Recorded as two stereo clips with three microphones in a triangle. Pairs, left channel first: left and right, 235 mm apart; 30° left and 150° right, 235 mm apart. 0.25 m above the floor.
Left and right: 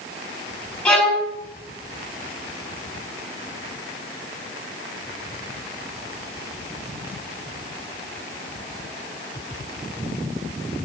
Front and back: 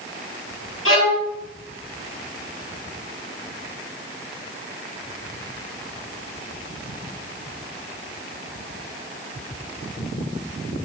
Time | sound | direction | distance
0.8 | a violin | 5° left | 3.5 m